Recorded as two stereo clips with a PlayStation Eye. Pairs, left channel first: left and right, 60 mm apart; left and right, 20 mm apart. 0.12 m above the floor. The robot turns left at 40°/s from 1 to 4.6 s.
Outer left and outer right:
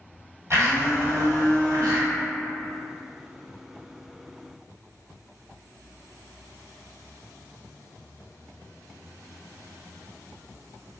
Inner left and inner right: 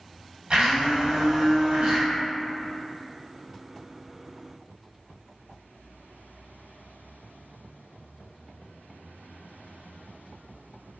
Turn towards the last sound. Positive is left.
turn(degrees=160)